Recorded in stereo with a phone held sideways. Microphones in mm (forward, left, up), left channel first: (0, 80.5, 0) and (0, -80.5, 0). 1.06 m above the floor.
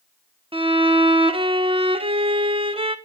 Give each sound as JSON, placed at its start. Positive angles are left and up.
{"t": 0.5, "sound": "a violin", "side_deg": -35, "distance_m": 1.1}